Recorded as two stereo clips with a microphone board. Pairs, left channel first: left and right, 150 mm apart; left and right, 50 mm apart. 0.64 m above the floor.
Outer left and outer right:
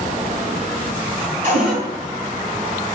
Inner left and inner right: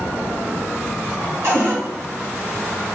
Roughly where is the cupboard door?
Right.